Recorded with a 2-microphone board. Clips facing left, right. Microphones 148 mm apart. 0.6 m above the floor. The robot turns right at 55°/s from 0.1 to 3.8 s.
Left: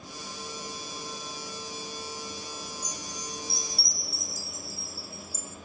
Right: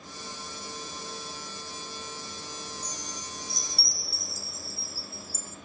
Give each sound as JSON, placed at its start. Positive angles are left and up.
{"t": 2.8, "sound": "a chime", "azimuth_deg": 160, "distance_m": 1.1}